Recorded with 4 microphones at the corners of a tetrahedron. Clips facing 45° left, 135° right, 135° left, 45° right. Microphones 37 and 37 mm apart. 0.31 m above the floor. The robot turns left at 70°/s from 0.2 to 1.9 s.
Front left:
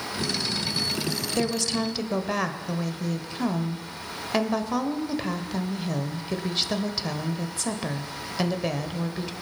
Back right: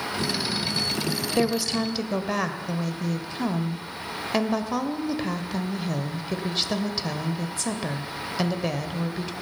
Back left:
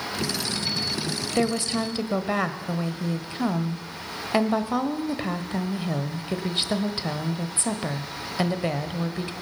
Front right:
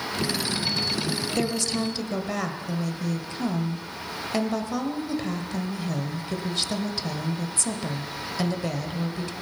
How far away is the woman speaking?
About 1.1 m.